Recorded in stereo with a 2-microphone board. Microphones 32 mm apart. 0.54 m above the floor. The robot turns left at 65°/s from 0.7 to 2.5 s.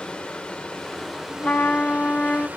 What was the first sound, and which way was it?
Running water, 30° left.